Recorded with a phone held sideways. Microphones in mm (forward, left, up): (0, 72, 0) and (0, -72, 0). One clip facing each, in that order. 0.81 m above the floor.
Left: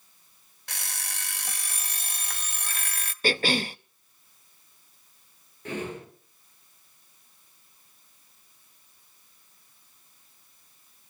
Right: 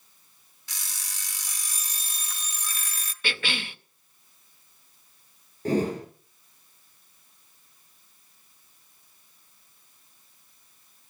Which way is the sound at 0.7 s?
65° left (ahead or behind).